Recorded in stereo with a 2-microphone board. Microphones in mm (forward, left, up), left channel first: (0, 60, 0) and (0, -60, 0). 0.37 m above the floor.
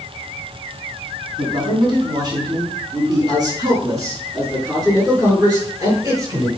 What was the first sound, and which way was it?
A man speaking, 45° right (ahead or behind).